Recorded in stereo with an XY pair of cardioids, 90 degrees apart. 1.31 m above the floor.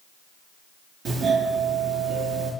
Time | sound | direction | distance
1.1 | a doorbell | 65° right | 3.5 m